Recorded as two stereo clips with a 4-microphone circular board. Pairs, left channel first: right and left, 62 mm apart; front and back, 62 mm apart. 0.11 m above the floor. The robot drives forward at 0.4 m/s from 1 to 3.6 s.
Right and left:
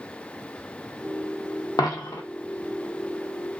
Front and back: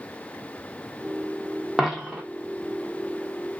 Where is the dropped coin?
95° right, 0.5 m; by 2.2 s 110° right, 0.6 m.